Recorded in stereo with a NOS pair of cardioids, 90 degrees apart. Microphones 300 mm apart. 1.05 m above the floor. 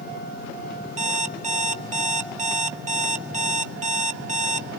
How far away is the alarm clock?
About 1.1 m.